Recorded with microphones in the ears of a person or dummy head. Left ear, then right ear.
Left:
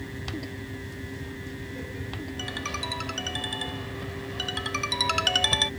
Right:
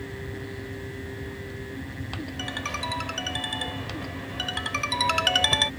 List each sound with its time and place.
2.4 s a ringtone: 15° right (ahead or behind)